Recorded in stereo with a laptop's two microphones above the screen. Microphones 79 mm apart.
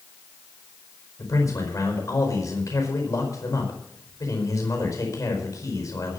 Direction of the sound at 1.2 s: 45° left (ahead or behind).